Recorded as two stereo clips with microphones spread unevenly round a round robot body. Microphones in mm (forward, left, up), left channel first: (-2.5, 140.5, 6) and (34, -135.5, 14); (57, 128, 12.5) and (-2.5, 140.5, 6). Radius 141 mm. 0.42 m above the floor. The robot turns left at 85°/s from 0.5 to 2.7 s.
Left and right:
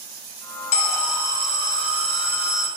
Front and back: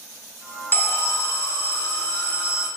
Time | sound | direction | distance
0.7 | an alarm | 40° left | 0.6 m